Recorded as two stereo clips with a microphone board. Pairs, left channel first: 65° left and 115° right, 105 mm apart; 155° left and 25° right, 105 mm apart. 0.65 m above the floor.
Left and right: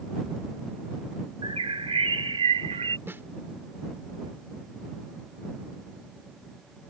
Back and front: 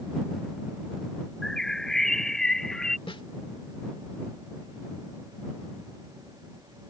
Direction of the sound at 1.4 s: 120° right.